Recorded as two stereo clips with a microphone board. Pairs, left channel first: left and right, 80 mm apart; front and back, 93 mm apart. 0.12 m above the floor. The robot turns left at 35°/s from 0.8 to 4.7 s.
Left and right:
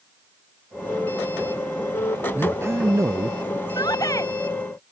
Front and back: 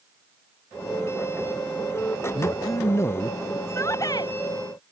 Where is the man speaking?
30° right; by 3.6 s 70° right.